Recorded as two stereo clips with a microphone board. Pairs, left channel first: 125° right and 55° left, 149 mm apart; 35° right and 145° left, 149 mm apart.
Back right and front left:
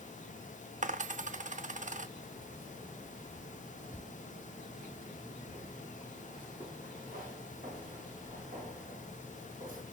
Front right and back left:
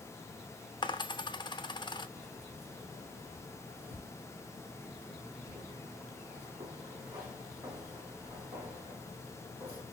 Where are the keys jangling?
70° left, 2.5 m.